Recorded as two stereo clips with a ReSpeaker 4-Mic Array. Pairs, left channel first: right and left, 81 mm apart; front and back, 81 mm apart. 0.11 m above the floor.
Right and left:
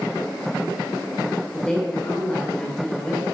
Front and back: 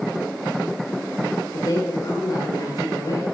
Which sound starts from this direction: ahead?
A woman speaking, at 1.5 s.